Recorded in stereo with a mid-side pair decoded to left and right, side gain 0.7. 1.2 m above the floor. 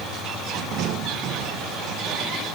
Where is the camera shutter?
No camera shutter in this recording.